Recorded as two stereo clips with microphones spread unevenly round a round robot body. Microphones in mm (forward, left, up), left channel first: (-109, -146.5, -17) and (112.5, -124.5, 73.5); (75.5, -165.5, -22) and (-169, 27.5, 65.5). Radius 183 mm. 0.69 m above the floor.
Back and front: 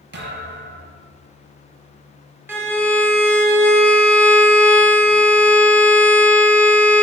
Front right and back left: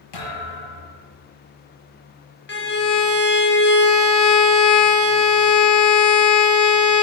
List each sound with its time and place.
0.1 s a thud: 30° right, 5.5 m
2.5 s a violin: 85° right, 2.5 m